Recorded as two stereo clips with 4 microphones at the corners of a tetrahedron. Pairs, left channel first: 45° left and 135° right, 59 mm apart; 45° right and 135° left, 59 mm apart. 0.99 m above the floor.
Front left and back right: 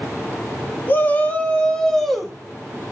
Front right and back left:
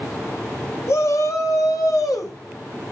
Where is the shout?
10° right, 2 m; by 2.4 s 50° right, 1.6 m.